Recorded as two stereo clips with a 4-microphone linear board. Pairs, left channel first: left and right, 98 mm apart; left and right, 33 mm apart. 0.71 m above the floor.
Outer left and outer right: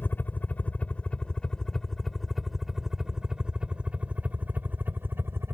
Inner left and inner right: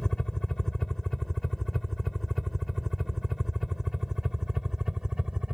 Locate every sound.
0.0 s a helicopter: 20° left (ahead or behind); by 5.5 s 25° right (ahead or behind)